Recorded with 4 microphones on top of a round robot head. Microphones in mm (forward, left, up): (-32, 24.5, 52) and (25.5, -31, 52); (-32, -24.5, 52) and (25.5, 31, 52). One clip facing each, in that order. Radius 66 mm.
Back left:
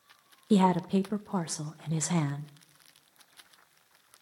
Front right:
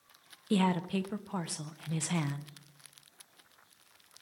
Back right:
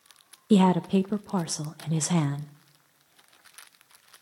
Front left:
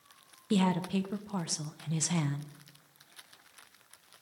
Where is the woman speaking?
165° right, 0.5 m.